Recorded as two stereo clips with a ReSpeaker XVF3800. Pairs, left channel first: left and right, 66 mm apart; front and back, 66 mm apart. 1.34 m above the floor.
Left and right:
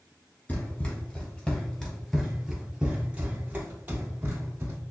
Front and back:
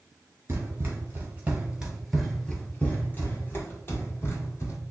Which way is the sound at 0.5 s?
140° left.